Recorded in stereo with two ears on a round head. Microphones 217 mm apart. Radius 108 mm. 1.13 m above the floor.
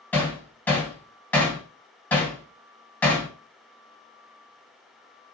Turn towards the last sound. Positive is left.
turn(degrees=5)  # may be behind; listen again after turning